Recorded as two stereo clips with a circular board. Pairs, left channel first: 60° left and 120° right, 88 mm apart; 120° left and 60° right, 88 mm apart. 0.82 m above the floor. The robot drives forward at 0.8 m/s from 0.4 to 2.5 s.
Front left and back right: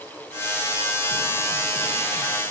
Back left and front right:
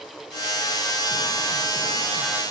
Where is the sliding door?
No sliding door in this recording.